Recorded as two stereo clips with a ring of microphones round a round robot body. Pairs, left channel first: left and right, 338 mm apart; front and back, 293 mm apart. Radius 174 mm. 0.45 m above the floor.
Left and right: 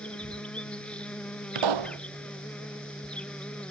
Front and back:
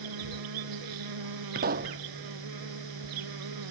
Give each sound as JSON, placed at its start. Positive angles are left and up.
{"t": 0.0, "sound": "an insect", "azimuth_deg": 175}
{"t": 1.6, "sound": "a pop", "azimuth_deg": -115}